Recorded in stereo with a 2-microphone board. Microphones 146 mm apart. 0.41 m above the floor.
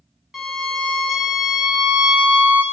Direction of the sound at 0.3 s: 5° right (ahead or behind).